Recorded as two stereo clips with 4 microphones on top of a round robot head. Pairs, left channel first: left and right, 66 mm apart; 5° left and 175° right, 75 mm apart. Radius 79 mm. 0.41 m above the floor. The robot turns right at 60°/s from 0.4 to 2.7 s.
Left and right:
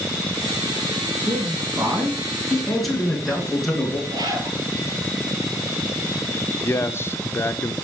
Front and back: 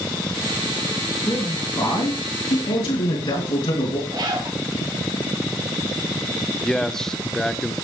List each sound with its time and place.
1.2 s a man speaking: 85° right, 5.5 m; by 4.0 s straight ahead, 5.5 m
4.1 s a zipper: 130° right, 1.8 m
6.6 s a man speaking: 85° left, 1.0 m